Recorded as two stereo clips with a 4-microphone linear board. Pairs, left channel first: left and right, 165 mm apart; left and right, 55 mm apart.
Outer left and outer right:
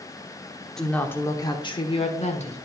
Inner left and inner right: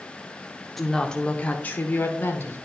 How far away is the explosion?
No explosion in this recording.